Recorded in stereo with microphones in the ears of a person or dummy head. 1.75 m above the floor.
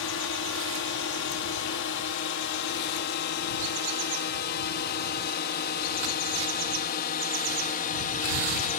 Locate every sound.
0.0 s a drone: 75° left (ahead or behind); by 8.8 s 50° left (ahead or behind)